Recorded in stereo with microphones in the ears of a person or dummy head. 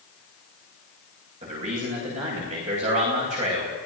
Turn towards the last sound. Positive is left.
turn(degrees=-40)  # may be behind; listen again after turning